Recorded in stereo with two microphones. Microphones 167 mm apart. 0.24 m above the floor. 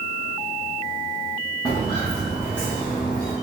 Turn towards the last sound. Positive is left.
turn(degrees=25)  # may be behind; listen again after turning